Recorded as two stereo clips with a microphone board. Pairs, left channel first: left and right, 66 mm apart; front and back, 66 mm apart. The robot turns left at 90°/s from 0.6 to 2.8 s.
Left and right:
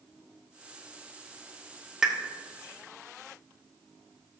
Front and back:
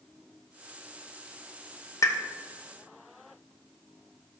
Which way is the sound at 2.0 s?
10° right.